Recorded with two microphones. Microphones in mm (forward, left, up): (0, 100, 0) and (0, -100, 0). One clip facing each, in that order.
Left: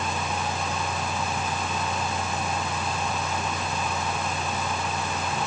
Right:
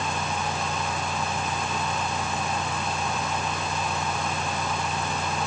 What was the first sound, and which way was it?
Only background noise.